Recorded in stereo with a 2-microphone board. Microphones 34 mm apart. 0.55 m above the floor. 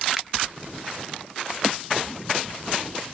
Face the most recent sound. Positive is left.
turn(degrees=-5)  # may be behind; listen again after turning